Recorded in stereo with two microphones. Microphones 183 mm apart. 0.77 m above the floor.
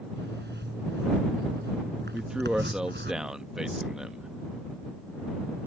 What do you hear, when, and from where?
0.2 s a zipper: 70° right (ahead or behind)
2.1 s a man speaking: 5° right (ahead or behind)